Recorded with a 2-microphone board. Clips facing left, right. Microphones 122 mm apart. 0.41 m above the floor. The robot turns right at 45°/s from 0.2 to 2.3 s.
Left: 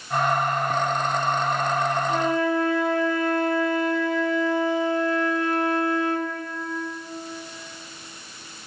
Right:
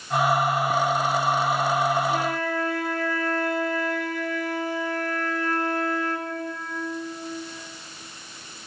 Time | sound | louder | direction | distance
2.1 | a flute | left 3 dB | 30° left (ahead or behind) | 0.6 m